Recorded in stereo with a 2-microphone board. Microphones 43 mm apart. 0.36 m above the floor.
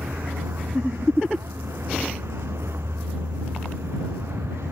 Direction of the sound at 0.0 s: 80° right.